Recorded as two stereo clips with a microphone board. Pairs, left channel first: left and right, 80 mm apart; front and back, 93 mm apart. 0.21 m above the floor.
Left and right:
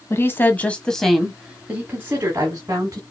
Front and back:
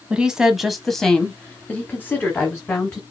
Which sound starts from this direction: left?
A woman speaking, at 0.1 s.